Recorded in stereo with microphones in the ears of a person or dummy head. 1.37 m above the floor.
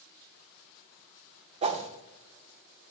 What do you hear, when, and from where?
1.6 s a whoosh: 35° right (ahead or behind), 0.9 m